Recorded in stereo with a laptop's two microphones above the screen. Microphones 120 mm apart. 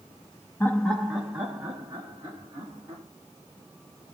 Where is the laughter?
20° left (ahead or behind), 0.7 m; by 3.0 s 30° right (ahead or behind), 1.9 m.